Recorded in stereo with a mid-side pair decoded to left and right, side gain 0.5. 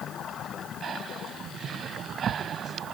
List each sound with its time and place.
0.8 s breathing: 50° right